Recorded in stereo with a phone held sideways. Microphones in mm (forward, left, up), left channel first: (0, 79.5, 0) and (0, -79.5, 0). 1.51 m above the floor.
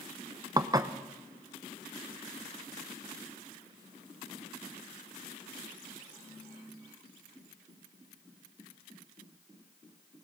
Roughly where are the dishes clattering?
Right.